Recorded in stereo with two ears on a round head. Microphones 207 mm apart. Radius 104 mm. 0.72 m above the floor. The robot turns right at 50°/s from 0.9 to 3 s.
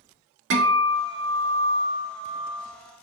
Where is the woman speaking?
No woman speaking in this recording.